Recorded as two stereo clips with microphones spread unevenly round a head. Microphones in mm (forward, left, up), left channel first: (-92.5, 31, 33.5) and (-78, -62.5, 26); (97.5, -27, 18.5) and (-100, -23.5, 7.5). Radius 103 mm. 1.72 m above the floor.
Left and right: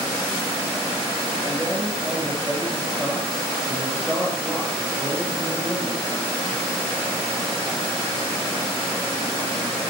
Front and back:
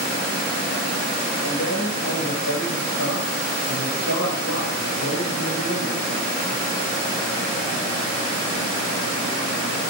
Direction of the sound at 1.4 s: 10° left.